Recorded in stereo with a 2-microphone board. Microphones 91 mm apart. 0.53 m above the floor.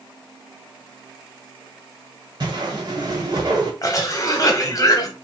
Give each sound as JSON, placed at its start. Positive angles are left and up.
{"t": 2.4, "sound": "a whoosh", "side_deg": -50, "distance_m": 1.7}
{"t": 3.8, "sound": "a cough", "side_deg": 40, "distance_m": 1.0}